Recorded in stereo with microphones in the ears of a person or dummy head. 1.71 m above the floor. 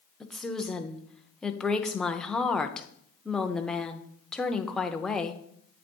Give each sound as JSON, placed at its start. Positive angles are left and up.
{"t": 0.2, "sound": "a woman speaking", "side_deg": 5, "distance_m": 0.6}